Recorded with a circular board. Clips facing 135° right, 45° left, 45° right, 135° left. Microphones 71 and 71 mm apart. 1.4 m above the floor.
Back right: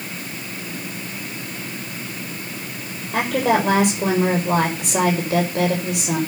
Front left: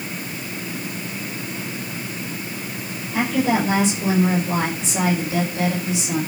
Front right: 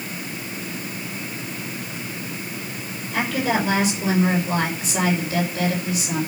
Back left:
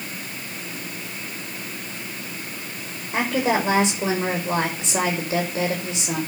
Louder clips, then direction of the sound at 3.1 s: Back right 1 dB, back left 1 dB; 160° right.